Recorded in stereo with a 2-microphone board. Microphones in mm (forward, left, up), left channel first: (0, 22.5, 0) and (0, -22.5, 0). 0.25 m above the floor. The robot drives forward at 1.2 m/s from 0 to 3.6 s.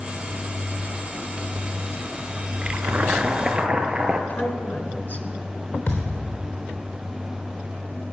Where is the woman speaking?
45° left (ahead or behind), 2.5 m.